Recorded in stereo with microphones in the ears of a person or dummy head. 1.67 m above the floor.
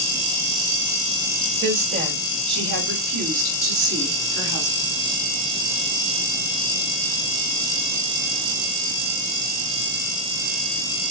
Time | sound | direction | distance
1.6 | a woman speaking | 45° right (ahead or behind) | 1.4 m